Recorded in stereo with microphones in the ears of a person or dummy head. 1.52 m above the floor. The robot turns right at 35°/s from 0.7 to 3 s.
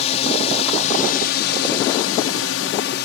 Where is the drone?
45° left; by 3.1 s 125° left.